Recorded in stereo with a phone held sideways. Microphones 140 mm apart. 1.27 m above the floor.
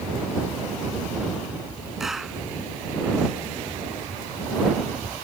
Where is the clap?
Centre (ahead or behind).